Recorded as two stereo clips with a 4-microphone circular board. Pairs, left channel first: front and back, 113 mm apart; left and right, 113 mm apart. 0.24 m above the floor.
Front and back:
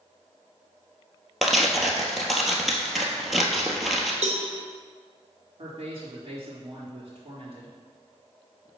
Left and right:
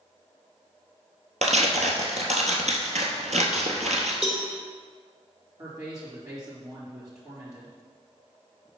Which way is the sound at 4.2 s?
170° right.